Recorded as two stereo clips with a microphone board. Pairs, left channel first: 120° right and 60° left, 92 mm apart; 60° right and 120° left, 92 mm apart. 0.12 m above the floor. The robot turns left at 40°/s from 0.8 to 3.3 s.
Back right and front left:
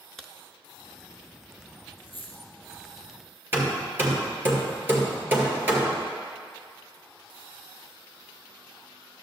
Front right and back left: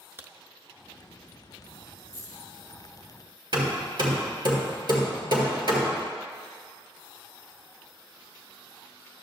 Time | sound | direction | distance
0.2 | a crack | 160° left | 0.6 m
2.0 | a dropped coin | 100° right | 2.5 m
3.5 | hammering | 120° left | 1.7 m